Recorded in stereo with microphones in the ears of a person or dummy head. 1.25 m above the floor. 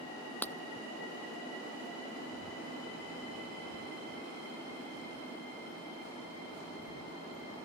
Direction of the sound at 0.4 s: 10° left (ahead or behind).